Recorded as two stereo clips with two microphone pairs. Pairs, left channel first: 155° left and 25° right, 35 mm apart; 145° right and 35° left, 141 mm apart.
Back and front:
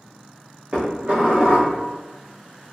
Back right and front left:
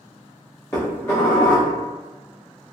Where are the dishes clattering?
75° right, 1.0 m.